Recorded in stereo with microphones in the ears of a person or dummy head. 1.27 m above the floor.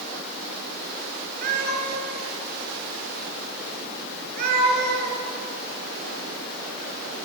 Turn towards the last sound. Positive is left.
turn(degrees=-60)  # may be behind; listen again after turning